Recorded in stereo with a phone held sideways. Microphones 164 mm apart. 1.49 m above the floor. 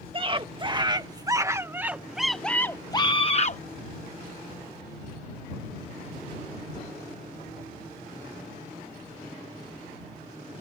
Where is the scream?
35° right (ahead or behind); by 3.6 s 50° left (ahead or behind).